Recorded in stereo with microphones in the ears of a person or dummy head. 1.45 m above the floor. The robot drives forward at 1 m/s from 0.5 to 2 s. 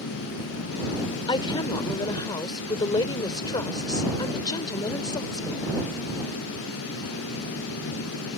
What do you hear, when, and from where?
1.3 s a woman speaking: 25° left (ahead or behind)